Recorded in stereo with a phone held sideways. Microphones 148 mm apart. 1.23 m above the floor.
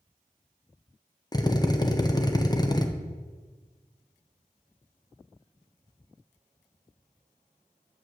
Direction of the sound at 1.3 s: 25° left (ahead or behind).